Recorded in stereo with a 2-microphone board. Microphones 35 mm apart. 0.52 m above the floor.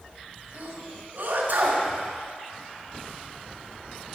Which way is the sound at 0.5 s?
65° right (ahead or behind).